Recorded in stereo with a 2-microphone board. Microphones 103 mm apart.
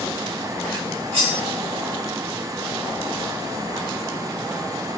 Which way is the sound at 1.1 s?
80° right.